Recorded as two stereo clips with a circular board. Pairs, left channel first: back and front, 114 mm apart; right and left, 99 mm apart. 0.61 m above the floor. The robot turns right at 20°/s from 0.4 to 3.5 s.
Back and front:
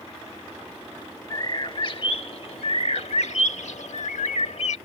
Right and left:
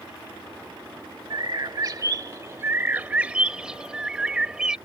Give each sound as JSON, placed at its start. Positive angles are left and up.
{"t": 1.3, "sound": "a bird", "azimuth_deg": 130}